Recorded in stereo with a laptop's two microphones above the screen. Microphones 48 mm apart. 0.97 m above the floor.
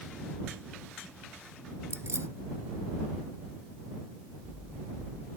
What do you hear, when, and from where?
1.9 s keys jangling: 65° right (ahead or behind)